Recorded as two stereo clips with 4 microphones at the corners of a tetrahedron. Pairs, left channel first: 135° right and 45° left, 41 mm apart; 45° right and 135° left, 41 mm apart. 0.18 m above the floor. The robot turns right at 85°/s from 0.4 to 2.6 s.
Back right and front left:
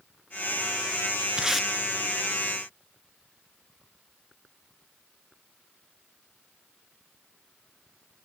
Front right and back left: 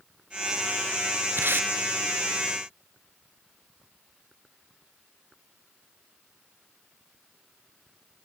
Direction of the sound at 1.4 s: 110° left.